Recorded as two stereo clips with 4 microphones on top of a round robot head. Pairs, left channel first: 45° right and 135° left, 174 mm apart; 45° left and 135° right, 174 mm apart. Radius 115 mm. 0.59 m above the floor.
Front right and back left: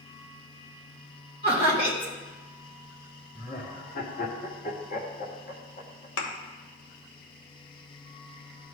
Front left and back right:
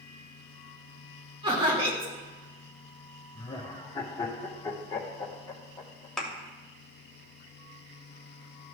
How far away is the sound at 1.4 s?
About 3 m.